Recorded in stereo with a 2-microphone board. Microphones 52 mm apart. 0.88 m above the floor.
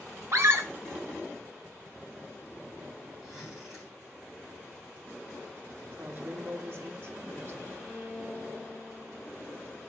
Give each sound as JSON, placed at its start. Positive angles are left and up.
{"t": 0.3, "sound": "a scream", "side_deg": -50, "distance_m": 1.7}
{"t": 3.2, "sound": "a zipper", "side_deg": -5, "distance_m": 4.0}
{"t": 6.0, "sound": "a woman speaking", "side_deg": -40, "distance_m": 1.3}
{"t": 7.8, "sound": "a violin", "side_deg": 10, "distance_m": 4.0}